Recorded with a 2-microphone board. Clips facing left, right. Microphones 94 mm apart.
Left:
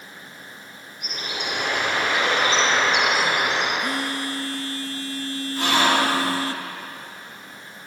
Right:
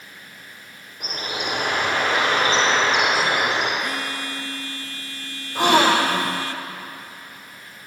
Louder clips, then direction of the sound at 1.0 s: Right 3 dB; 60° right (ahead or behind).